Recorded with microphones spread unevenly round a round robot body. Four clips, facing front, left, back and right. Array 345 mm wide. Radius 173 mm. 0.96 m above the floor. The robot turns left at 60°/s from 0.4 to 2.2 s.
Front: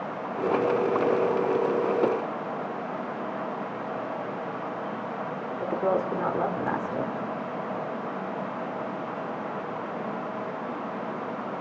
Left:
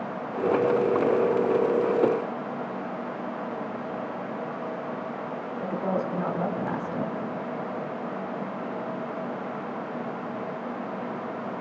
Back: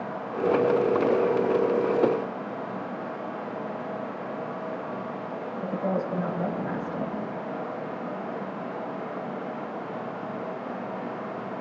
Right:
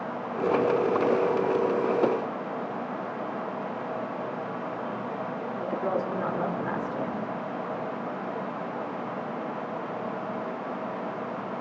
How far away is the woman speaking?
About 3 m.